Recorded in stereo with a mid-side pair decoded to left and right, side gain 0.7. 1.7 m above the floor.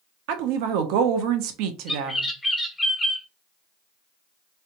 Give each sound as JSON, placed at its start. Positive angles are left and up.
{"t": 0.3, "sound": "a woman speaking", "azimuth_deg": -70, "distance_m": 0.7}
{"t": 1.9, "sound": "a bird", "azimuth_deg": 10, "distance_m": 0.9}